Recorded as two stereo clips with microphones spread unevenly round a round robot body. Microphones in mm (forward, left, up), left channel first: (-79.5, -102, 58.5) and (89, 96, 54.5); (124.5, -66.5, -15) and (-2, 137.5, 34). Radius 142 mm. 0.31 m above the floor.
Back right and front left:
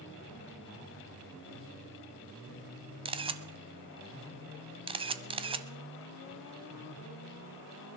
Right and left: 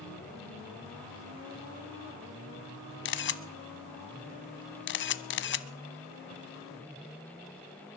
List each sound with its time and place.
3.0 s a camera shutter: 20° right, 1.0 m